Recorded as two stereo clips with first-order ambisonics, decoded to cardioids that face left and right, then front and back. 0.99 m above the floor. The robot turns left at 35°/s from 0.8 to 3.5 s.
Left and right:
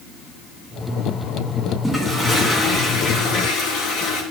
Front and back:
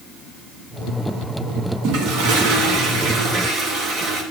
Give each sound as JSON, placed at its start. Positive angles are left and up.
{"t": 1.8, "sound": "a toilet flushing", "azimuth_deg": -175, "distance_m": 1.3}